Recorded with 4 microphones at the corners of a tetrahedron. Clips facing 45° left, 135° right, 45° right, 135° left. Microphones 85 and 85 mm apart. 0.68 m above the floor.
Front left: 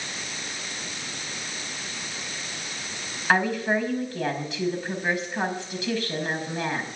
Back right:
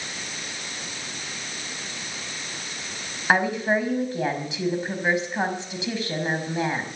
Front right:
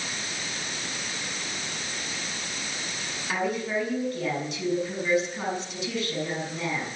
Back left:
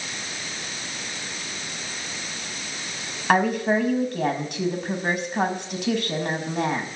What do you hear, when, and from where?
3.3 s a woman speaking: 155° left, 5.5 m